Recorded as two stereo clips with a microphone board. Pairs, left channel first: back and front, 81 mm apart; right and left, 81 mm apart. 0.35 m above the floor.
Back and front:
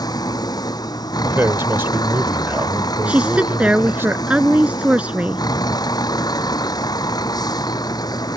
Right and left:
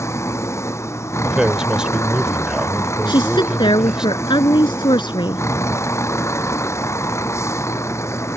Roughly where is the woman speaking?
Right.